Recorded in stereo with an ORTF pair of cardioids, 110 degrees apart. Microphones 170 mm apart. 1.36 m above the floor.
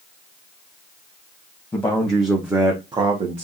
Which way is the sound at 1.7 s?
15° left.